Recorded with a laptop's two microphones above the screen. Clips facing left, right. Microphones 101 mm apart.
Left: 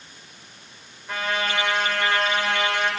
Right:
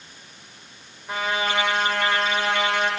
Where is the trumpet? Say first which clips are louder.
Right 1 dB; 20° right (ahead or behind), 3.5 m.